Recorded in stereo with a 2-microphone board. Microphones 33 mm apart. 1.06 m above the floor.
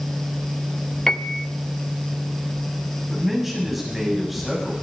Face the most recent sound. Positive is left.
turn(degrees=-10)  # may be behind; listen again after turning